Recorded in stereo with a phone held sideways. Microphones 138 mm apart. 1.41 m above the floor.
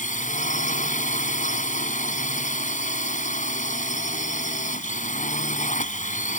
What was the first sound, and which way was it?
A drone, 75° left (ahead or behind).